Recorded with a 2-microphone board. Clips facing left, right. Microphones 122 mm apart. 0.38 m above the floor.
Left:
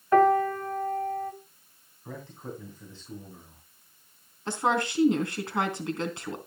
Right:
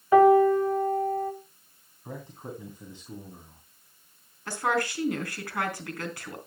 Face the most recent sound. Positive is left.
turn(degrees=20)  # may be behind; listen again after turning